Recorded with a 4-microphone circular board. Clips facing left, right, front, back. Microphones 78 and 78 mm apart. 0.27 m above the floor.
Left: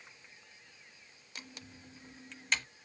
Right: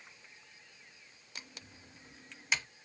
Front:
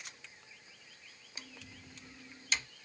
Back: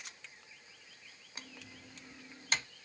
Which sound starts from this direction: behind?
Typing on a keyboard, at 1.4 s.